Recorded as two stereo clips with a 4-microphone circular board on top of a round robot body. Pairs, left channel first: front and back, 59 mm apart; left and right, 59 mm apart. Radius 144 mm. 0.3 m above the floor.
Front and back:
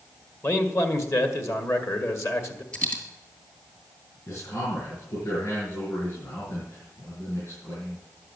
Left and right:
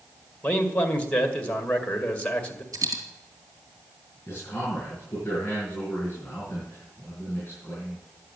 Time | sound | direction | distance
0.4 | a man speaking | 25° left | 2 m
2.7 | a dropped coin | 65° right | 2.5 m
4.3 | a man speaking | 35° left | 5.5 m